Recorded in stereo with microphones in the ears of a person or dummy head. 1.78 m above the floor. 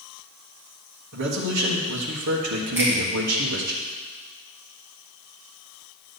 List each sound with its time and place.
1.1 s a man speaking: 60° right (ahead or behind), 1.6 m
2.8 s a finger snap: 10° right (ahead or behind), 3.5 m